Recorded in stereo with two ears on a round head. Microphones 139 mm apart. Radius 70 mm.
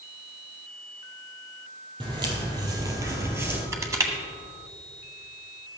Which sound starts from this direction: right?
Footsteps, at 2.0 s.